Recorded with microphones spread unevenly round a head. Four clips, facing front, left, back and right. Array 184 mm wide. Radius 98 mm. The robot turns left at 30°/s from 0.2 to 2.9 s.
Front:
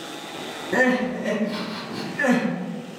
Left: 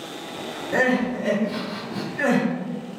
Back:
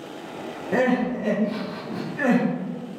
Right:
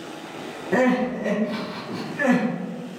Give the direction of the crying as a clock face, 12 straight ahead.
5 o'clock.